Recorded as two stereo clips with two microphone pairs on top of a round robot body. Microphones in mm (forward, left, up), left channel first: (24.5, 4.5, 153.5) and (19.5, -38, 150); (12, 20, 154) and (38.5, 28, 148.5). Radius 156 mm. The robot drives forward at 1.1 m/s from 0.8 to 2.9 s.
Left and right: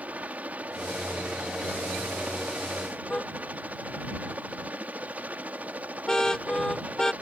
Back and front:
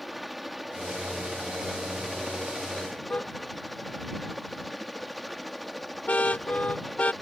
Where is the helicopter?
60° right; by 7.2 s 65° right.